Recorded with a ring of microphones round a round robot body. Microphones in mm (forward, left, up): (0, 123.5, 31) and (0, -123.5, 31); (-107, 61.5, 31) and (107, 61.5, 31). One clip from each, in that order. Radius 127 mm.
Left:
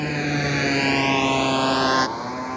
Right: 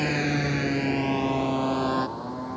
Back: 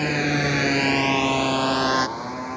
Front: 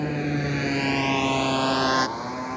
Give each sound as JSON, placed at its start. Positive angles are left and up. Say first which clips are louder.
{"t": 0.0, "sound": "a motorcycle", "louder": "left 2 dB, back 5 dB", "azimuth_deg": -165}